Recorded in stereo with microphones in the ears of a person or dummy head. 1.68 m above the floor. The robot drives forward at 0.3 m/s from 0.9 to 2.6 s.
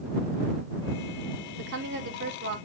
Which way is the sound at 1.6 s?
55° right (ahead or behind).